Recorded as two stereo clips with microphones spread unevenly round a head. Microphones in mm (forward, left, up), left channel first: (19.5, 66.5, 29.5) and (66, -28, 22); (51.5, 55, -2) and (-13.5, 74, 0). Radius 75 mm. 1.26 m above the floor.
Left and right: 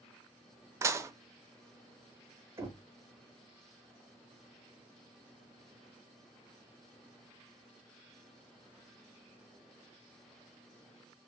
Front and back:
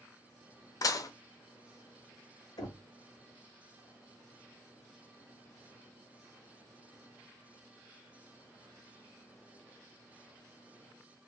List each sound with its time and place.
0.8 s dishes clattering: 5° right, 0.6 m
2.6 s knocking: straight ahead, 1.5 m